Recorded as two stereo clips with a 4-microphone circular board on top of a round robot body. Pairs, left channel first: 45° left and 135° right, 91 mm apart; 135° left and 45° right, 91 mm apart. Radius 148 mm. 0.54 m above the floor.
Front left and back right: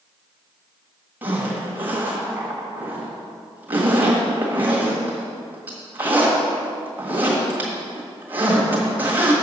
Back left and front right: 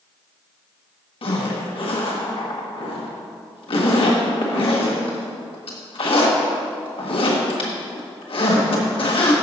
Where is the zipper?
155° left, 1.6 m.